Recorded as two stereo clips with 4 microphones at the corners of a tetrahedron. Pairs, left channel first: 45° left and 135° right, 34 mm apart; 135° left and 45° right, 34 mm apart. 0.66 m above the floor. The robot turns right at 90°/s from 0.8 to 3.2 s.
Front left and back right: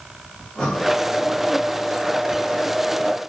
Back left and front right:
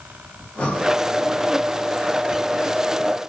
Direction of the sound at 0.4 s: 100° left.